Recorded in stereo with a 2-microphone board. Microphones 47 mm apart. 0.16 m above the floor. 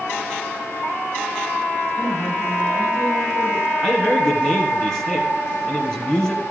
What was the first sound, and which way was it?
A woman speaking, 5° left (ahead or behind).